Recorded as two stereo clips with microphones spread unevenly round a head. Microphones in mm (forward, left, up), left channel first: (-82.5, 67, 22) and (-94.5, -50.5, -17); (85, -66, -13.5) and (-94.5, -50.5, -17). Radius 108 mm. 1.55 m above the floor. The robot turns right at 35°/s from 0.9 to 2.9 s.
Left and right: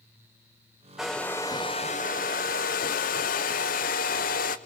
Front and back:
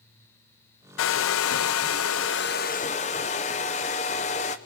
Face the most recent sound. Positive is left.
turn(degrees=55)